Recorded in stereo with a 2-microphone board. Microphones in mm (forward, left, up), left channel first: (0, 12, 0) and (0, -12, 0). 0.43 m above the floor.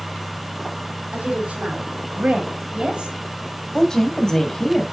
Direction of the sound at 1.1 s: 70° right (ahead or behind).